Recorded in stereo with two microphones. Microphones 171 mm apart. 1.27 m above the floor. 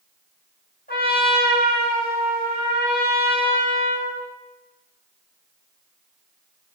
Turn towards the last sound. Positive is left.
turn(degrees=65)  # may be behind; listen again after turning